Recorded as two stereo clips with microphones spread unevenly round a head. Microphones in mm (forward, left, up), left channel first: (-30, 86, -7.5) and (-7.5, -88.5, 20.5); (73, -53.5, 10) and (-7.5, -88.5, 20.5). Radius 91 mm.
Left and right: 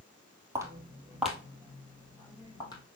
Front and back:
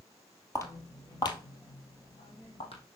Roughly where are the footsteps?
Ahead right.